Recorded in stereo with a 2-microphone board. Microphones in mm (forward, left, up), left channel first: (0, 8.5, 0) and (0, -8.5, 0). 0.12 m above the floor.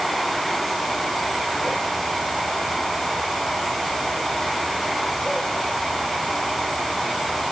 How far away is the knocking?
No knocking in this recording.